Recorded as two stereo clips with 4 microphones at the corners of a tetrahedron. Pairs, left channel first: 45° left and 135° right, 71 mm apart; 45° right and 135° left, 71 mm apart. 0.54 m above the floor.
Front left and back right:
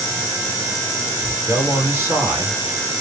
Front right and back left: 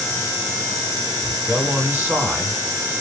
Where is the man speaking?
170° right, 2.0 m.